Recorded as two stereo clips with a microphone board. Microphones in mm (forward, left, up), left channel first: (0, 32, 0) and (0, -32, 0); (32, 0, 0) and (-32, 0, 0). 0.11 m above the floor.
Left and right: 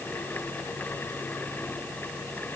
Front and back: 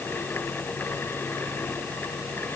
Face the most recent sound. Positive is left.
No sound to turn to.